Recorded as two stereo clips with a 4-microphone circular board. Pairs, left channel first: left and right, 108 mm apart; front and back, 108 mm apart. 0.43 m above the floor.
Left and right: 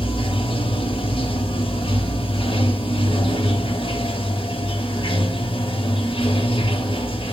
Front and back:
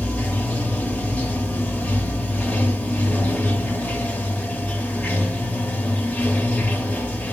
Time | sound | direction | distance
0.0 | running water | 75° left | 0.9 m